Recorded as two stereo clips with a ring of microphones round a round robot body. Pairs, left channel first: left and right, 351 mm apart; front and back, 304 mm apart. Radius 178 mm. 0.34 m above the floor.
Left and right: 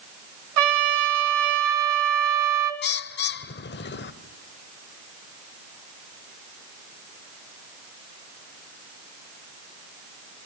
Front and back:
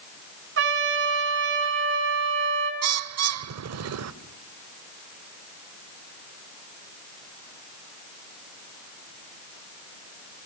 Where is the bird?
150° left, 0.8 m.